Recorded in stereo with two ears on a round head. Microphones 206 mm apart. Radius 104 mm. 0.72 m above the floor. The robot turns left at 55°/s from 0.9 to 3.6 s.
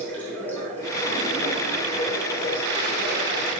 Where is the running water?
170° left, 4.5 m; by 3.6 s 25° left, 4.5 m.